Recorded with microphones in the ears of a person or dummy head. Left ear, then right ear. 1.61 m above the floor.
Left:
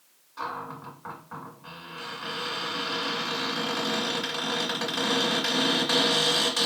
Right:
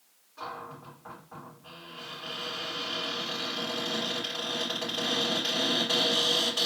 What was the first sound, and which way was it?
A cupboard door, 70° left (ahead or behind).